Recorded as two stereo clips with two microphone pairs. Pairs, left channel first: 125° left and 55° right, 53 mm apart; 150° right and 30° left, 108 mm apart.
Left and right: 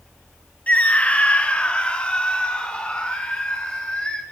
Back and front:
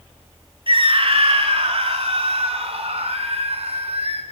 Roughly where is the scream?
Ahead left.